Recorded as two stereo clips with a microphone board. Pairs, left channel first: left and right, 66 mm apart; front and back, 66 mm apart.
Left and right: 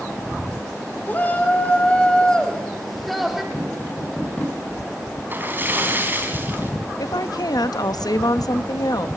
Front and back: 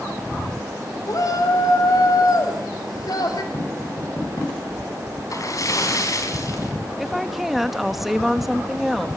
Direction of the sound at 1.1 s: 30° left.